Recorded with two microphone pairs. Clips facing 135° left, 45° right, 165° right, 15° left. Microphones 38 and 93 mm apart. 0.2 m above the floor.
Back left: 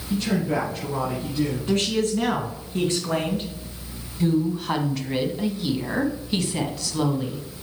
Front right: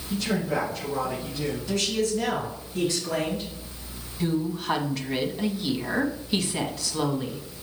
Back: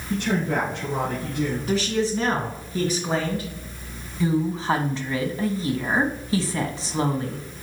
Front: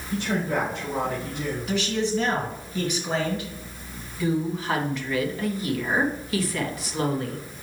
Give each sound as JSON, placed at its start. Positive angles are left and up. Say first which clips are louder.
{"t": 0.1, "sound": "a man speaking", "louder": "back left 3 dB, back 2 dB", "azimuth_deg": -170, "distance_m": 3.5}
{"t": 1.7, "sound": "a man speaking", "louder": "back left 1 dB, even", "azimuth_deg": 155, "distance_m": 2.5}
{"t": 4.2, "sound": "a woman speaking", "louder": "back left 4 dB, back 2 dB", "azimuth_deg": -135, "distance_m": 1.1}